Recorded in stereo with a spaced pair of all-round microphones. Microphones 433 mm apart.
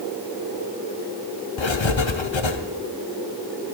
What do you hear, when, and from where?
1.6 s writing: 80° left, 0.9 m